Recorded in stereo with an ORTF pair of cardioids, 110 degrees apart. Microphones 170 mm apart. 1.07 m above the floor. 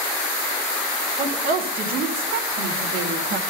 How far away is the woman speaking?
About 2.5 m.